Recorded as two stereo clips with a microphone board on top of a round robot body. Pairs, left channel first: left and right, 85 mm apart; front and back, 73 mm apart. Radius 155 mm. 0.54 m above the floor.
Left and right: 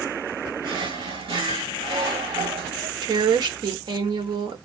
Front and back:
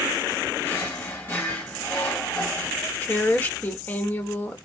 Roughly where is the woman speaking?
Ahead right.